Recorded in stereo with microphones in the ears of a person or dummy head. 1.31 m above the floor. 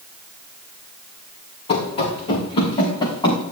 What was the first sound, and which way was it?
Running footsteps, 30° left (ahead or behind).